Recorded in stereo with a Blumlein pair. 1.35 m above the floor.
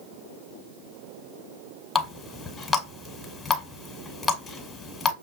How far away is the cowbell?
No cowbell in this recording.